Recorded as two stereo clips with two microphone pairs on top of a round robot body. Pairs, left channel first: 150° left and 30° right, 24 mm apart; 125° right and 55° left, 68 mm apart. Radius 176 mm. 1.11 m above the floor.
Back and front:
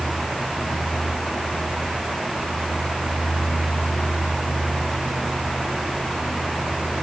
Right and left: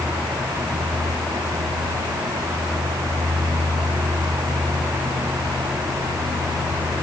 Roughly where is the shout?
No shout in this recording.